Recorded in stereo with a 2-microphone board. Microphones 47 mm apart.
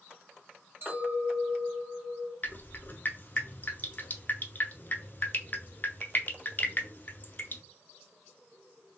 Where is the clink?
45° right (ahead or behind), 2 m.